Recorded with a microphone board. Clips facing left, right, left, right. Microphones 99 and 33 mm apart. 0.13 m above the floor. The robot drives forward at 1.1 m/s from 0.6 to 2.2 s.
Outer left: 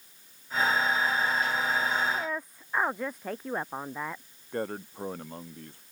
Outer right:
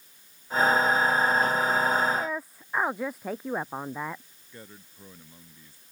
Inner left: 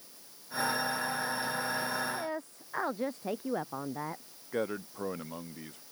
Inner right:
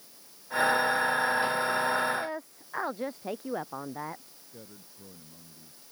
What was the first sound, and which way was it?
A woman speaking, 5° right (ahead or behind).